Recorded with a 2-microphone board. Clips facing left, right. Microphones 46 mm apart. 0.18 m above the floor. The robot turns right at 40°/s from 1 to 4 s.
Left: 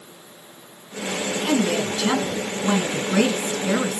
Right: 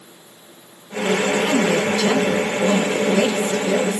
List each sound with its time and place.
1.4 s a woman speaking: 20° right, 2.5 m; by 4.0 s 80° left, 2.5 m